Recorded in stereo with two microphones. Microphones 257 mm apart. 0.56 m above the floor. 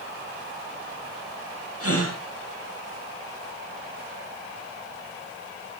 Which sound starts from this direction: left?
A gasp, at 1.8 s.